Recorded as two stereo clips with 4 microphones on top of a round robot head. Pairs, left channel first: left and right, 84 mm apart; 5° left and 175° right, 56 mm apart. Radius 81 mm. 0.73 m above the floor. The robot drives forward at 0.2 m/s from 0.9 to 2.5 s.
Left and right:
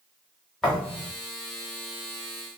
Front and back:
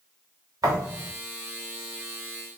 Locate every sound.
0.6 s a thud: 175° left, 0.9 m